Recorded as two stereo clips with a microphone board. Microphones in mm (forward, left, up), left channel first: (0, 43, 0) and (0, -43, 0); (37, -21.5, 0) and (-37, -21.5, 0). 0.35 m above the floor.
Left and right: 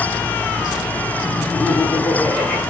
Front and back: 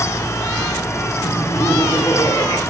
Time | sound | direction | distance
1.2 | laughter | 10° left | 6 m